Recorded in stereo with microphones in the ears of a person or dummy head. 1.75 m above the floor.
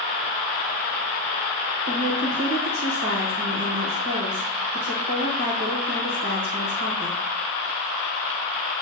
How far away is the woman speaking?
About 1.3 m.